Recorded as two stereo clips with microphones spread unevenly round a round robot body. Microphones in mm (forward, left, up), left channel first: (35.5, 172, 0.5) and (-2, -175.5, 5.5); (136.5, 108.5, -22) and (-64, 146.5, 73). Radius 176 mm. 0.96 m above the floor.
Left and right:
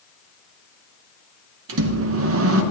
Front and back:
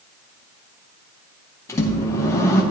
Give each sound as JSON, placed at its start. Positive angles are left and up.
{"t": 1.7, "sound": "a microwave", "azimuth_deg": -55, "distance_m": 0.7}